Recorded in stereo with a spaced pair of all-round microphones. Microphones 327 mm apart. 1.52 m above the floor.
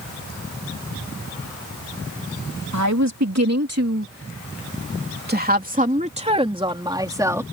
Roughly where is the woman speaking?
Right.